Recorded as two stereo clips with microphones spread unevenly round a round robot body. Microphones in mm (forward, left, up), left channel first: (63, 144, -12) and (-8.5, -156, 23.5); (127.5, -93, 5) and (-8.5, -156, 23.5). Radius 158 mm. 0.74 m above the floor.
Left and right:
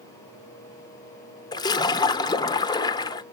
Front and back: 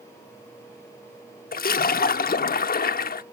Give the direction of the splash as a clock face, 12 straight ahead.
12 o'clock.